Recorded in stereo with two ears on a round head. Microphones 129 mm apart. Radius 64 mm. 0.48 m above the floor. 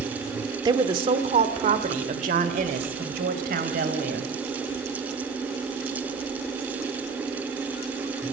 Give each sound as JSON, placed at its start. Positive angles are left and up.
{"t": 0.7, "sound": "a woman speaking", "side_deg": -30, "distance_m": 1.2}